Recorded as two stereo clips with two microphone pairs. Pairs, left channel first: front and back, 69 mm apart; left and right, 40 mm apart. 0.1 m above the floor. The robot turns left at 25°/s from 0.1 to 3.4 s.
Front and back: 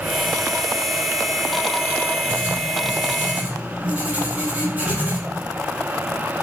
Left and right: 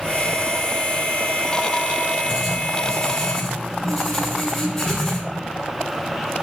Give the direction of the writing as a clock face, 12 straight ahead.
5 o'clock.